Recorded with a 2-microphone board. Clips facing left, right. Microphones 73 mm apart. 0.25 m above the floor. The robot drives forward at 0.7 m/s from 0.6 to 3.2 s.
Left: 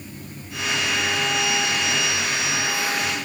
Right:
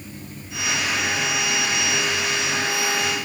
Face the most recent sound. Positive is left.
No sound to turn to.